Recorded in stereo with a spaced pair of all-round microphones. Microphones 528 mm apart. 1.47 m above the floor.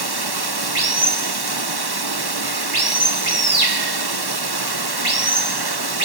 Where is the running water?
45° right (ahead or behind), 1.2 m.